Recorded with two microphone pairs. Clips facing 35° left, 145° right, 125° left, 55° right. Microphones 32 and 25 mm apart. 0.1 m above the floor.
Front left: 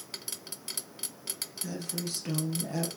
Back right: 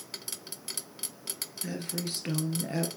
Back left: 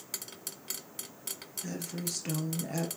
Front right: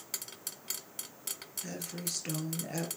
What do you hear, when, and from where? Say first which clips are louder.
1.6 s a woman speaking: back right 1 dB, back left 3 dB; 135° right, 1.5 m